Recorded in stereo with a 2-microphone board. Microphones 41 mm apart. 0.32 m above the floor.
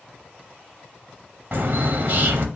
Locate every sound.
1.5 s a bird: 55° right (ahead or behind), 0.6 m